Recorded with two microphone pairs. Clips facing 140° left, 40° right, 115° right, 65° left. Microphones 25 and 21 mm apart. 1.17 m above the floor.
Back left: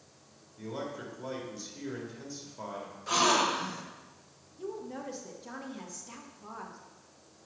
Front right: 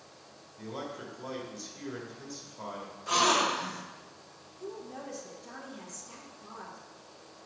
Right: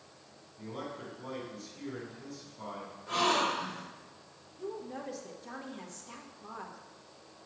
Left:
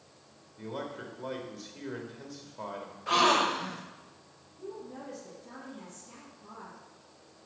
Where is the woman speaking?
160° right, 1.4 m.